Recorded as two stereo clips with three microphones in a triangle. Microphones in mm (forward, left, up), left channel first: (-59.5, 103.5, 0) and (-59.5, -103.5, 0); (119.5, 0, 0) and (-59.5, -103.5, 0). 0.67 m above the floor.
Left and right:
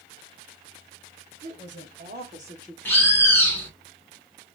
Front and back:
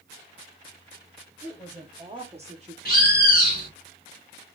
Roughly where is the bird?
Ahead.